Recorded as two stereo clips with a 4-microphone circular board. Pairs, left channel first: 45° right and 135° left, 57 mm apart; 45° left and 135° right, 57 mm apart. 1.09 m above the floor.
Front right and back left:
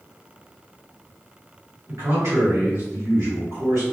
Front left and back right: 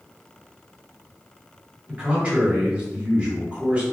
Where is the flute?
No flute in this recording.